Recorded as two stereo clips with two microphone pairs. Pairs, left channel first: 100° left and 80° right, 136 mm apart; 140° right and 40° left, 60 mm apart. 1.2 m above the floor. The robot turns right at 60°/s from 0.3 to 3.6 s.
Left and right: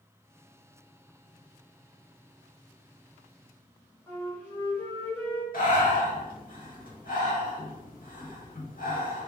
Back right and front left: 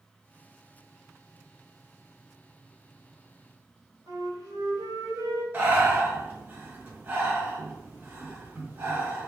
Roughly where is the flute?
Ahead left.